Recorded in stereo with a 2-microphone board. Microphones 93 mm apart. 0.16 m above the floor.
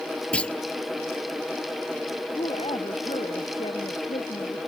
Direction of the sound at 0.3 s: 10° left (ahead or behind).